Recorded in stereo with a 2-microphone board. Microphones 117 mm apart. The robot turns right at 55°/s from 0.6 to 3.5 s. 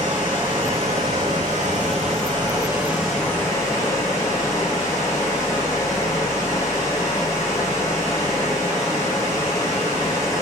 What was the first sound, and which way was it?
Running water, 135° right.